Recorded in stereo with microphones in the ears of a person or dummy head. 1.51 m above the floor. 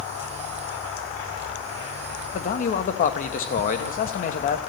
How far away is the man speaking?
About 1.4 m.